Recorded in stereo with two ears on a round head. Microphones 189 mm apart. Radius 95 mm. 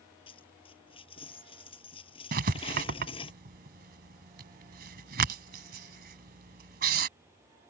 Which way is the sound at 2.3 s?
50° right (ahead or behind).